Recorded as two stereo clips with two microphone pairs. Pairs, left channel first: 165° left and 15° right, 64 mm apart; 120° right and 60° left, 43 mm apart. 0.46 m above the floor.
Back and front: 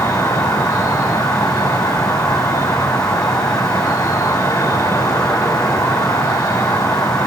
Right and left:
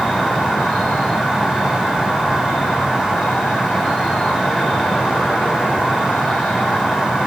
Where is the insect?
175° left, 1.0 m.